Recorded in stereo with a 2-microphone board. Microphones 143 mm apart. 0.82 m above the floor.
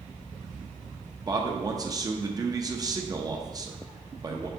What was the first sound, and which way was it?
A man speaking, 25° right (ahead or behind).